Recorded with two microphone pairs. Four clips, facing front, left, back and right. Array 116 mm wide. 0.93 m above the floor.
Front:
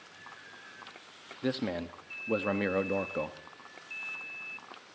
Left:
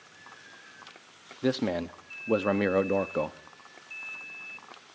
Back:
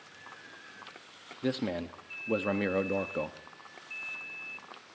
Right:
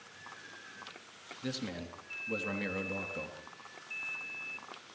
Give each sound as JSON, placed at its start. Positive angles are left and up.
{"t": 1.4, "sound": "a man speaking", "azimuth_deg": 95, "distance_m": 1.1}